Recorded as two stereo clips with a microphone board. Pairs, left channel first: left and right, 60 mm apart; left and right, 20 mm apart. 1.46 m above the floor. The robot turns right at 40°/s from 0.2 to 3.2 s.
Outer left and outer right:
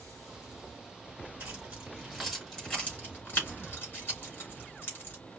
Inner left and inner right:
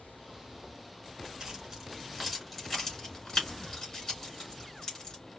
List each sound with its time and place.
1.4 s keys jangling: 40° right (ahead or behind), 3.5 m; by 5.2 s 30° left (ahead or behind), 3.5 m